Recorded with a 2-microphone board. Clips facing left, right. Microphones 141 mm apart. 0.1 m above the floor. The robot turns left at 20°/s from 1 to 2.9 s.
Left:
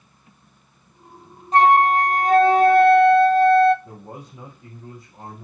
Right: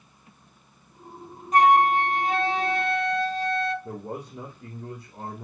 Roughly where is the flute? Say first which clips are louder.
Left 3 dB; left.